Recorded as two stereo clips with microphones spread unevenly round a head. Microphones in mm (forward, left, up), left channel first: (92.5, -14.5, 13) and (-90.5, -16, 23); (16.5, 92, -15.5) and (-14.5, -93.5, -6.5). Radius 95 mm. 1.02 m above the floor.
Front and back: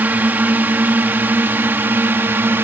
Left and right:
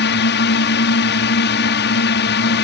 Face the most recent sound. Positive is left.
turn(degrees=100)